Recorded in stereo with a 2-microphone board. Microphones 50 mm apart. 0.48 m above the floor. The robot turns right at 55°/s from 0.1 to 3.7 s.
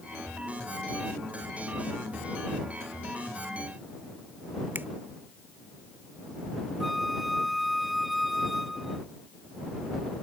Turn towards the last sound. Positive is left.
turn(degrees=0)  # may be behind; listen again after turning